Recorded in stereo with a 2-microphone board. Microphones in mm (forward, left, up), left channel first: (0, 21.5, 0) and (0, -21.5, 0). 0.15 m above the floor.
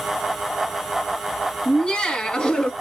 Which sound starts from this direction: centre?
Laughter, at 1.6 s.